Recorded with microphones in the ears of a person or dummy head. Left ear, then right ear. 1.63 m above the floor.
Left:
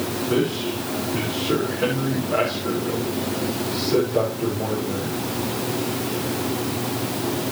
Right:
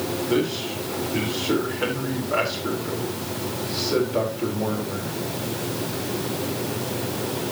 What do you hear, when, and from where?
0.3 s a man speaking: 85° right, 5 m